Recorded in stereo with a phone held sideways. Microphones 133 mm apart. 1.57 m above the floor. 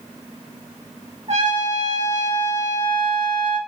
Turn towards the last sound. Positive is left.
turn(degrees=-55)  # may be behind; listen again after turning